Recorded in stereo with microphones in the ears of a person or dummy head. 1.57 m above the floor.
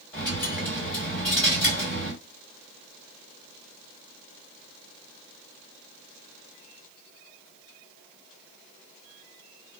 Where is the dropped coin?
10° left (ahead or behind), 2.5 m.